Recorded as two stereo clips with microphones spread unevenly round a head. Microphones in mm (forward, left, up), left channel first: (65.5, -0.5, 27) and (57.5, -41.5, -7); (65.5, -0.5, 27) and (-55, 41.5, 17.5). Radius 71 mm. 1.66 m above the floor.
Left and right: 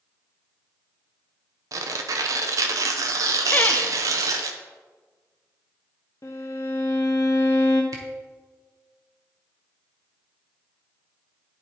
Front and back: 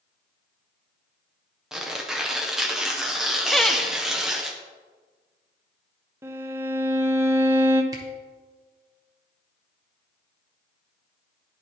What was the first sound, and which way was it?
Tearing paper, 105° right.